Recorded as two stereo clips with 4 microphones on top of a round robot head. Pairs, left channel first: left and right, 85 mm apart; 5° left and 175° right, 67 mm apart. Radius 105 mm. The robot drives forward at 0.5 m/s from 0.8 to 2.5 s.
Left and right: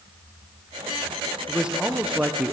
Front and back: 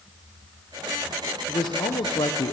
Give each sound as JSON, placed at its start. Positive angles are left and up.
{"t": 1.5, "sound": "a man speaking", "azimuth_deg": -10, "distance_m": 1.3}